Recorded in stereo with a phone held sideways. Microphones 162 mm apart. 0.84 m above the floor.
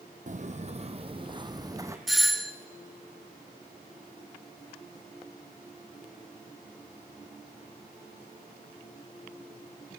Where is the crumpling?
I don't hear crumpling.